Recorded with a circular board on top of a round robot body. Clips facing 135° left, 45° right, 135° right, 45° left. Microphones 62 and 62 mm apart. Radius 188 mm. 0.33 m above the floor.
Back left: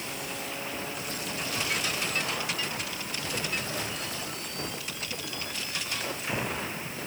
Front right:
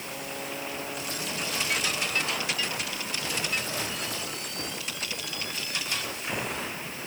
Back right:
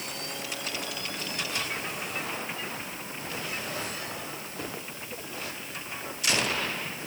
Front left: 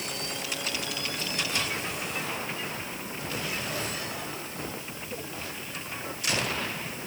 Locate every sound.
Only background noise.